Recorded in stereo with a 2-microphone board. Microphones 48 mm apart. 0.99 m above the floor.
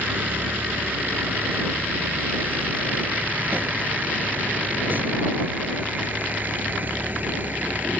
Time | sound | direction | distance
0.0 | a vehicle | 45° right (ahead or behind) | ?